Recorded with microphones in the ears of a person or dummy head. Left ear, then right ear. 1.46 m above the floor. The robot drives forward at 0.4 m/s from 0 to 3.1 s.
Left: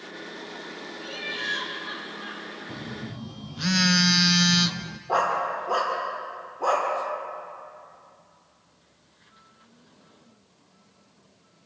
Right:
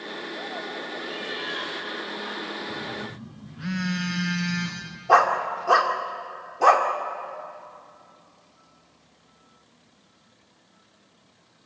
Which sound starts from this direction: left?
A phone buzzing, at 2.7 s.